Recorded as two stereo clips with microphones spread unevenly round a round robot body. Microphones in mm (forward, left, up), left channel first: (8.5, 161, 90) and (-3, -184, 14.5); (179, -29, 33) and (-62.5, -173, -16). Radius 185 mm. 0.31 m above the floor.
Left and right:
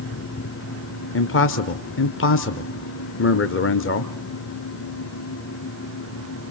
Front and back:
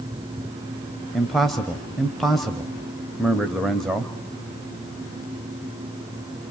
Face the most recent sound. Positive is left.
turn(degrees=135)